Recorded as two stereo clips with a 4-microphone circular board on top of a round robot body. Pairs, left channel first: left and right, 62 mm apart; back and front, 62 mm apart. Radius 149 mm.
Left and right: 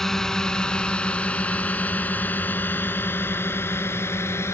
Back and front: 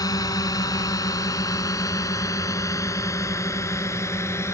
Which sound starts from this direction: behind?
A drone, at 0.0 s.